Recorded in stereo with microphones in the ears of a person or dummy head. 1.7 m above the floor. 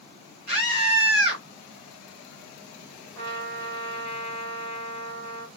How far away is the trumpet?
About 1.5 m.